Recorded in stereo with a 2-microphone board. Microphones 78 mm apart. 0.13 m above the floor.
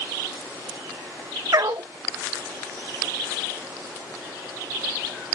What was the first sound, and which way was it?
A dog barking, 55° right (ahead or behind).